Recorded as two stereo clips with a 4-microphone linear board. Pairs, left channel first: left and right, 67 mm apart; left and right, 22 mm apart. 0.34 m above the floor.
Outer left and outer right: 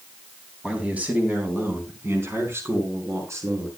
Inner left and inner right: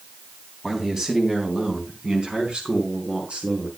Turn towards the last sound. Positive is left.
turn(degrees=-50)  # may be behind; listen again after turning